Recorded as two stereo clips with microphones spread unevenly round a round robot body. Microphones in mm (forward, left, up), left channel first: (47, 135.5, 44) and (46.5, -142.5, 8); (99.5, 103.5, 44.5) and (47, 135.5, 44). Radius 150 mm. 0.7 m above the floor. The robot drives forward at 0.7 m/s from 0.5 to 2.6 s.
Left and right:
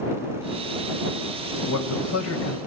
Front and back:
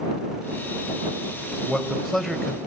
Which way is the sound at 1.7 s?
55° left.